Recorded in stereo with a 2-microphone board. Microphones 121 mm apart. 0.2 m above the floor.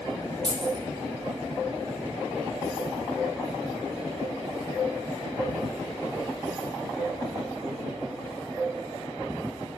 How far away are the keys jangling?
About 2.5 m.